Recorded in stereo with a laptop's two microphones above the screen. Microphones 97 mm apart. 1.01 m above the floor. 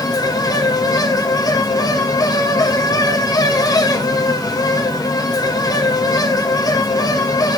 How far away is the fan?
About 2 m.